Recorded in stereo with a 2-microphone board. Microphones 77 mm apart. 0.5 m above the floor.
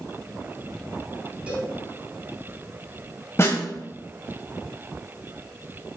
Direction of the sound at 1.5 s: 15° right (ahead or behind).